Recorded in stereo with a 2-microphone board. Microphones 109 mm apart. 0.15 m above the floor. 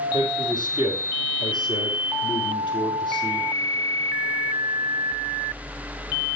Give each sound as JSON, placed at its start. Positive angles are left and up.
{"t": 0.1, "sound": "a man speaking", "side_deg": 45, "distance_m": 4.0}